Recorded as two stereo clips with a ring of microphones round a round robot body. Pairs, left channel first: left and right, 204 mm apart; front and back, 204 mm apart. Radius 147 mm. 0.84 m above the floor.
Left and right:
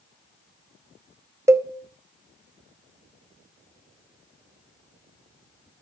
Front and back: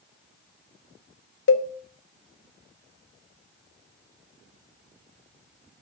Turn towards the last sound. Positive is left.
turn(degrees=-15)